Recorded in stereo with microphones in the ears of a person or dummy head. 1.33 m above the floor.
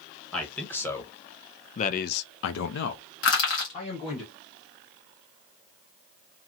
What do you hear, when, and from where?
0.3 s a man speaking: 10° left (ahead or behind), 1.4 m; by 4.2 s 30° left (ahead or behind), 1.4 m
3.2 s crushing: 60° left (ahead or behind), 1.4 m